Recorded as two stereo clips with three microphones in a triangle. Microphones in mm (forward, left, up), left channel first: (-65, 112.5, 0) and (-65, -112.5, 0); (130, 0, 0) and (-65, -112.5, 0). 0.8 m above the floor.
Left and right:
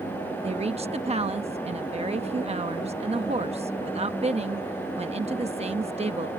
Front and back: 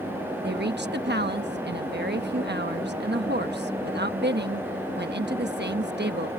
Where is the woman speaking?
145° right.